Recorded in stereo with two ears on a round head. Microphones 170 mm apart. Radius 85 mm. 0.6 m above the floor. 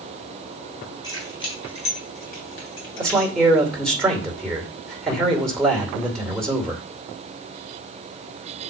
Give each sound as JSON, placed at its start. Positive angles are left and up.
{"t": 1.0, "sound": "keys jangling", "side_deg": 20, "distance_m": 4.0}
{"t": 3.0, "sound": "a man speaking", "side_deg": 5, "distance_m": 2.5}